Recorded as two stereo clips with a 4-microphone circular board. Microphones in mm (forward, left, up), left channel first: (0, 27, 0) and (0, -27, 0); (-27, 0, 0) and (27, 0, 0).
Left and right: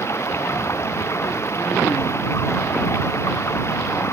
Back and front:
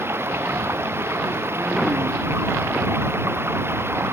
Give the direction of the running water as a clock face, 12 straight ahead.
10 o'clock.